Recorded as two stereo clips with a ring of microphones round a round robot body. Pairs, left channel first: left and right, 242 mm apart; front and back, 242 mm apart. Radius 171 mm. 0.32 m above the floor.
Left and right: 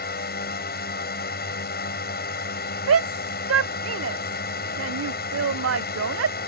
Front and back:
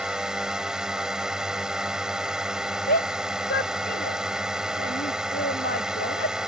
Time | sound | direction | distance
0.0 | a drone | 95° left | ?
2.9 | a shout | 65° right | ?